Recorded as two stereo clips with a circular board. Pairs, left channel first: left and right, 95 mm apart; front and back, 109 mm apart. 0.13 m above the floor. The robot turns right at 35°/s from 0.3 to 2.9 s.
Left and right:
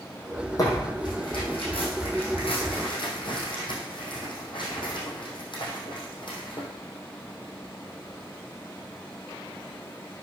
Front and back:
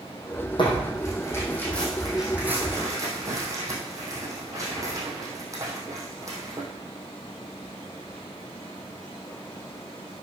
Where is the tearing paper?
40° left, 3 m; by 6.7 s 120° left, 3 m.